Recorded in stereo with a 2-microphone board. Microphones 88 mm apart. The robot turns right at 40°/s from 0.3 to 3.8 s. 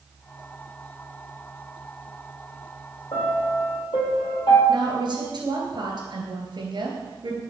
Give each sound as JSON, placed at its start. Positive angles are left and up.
{"t": 3.1, "sound": "a piano", "side_deg": 70, "distance_m": 3.5}
{"t": 4.7, "sound": "a woman speaking", "side_deg": -60, "distance_m": 2.5}